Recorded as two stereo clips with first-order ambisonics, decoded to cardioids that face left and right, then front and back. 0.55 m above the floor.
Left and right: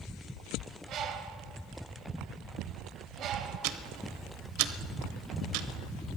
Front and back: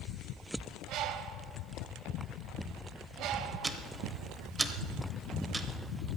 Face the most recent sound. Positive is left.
turn(degrees=-100)